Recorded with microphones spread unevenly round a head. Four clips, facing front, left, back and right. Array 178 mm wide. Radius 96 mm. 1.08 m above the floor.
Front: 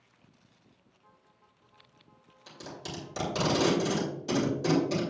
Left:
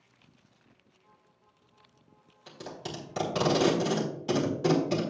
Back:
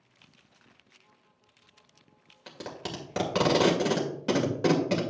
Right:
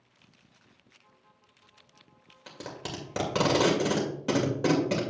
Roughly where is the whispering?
I don't hear whispering.